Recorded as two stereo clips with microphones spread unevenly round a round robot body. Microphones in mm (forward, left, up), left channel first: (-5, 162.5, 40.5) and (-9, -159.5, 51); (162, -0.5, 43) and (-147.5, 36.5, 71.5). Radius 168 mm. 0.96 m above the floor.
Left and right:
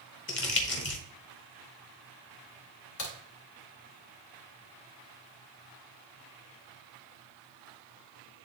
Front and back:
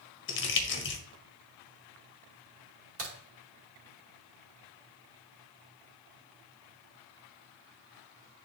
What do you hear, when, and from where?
0.3 s crumpling: 40° left, 1.2 m
3.0 s a crack: 125° left, 2.5 m